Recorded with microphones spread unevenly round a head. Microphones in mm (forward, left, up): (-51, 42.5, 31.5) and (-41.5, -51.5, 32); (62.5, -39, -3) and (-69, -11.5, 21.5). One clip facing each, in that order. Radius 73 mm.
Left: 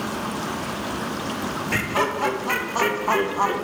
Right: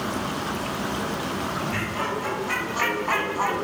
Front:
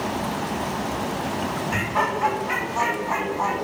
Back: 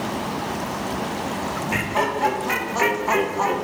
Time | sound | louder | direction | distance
1.7 | laughter | left 4 dB, back 3 dB | 95° left | 1.8 m